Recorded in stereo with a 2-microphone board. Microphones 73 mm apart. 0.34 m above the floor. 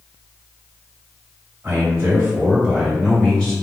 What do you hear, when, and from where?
1.6 s a man speaking: 40° right (ahead or behind), 1.9 m; by 3.5 s 20° left (ahead or behind), 1.5 m